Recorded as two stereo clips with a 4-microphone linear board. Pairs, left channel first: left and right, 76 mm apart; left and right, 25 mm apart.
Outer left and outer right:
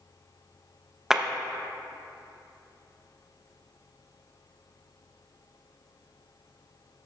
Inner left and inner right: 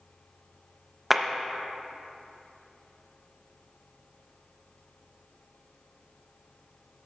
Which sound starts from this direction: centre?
A clap, at 1.1 s.